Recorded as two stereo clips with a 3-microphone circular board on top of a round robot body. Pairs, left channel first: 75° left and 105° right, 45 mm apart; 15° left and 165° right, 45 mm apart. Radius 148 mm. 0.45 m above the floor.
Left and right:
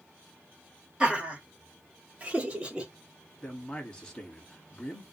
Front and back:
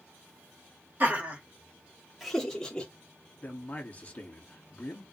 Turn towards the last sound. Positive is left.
turn(degrees=20)